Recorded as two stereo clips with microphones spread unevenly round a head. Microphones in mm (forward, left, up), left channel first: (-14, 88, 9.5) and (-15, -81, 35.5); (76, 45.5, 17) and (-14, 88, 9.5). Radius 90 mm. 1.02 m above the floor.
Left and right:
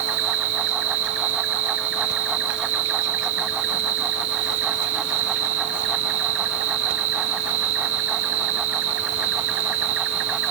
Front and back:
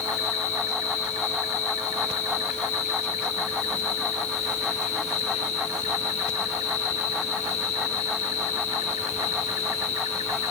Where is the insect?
65° right, 0.8 m.